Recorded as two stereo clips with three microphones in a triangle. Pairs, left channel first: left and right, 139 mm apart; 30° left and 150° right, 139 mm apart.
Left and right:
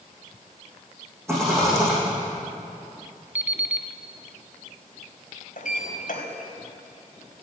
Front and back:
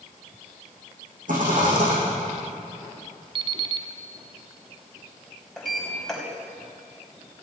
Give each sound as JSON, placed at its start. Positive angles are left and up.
{"t": 1.3, "sound": "a rattle", "azimuth_deg": -160, "distance_m": 7.0}
{"t": 3.4, "sound": "an alarm clock", "azimuth_deg": -160, "distance_m": 1.0}
{"t": 5.6, "sound": "a sliding door", "azimuth_deg": 115, "distance_m": 4.0}